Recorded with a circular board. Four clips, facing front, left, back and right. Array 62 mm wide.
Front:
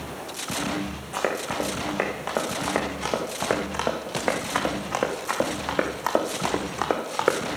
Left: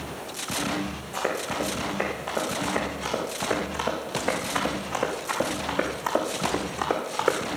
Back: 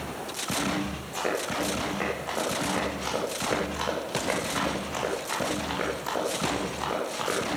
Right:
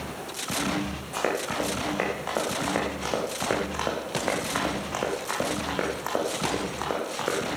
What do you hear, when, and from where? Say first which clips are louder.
1.1 s running footsteps: right 1 dB, front 2 dB; 30° right, 5.5 m; by 7.4 s 20° left, 3.5 m